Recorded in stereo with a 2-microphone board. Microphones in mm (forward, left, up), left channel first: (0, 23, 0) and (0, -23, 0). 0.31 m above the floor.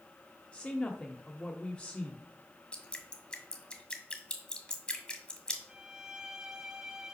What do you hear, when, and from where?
0.5 s a woman speaking: 25° left (ahead or behind), 0.9 m
2.7 s dripping: 20° left (ahead or behind), 1.4 m
5.7 s a violin: 15° right (ahead or behind), 1.2 m